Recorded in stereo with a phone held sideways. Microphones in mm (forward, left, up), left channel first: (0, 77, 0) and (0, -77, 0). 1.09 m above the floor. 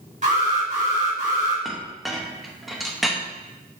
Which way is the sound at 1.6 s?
Centre (ahead or behind).